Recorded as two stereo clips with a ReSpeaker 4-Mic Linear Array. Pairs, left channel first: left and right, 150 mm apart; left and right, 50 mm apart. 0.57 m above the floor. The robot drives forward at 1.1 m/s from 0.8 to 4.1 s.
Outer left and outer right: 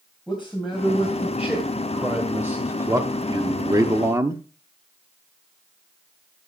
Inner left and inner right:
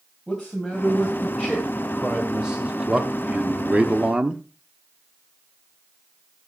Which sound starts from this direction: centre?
A man speaking, at 0.3 s.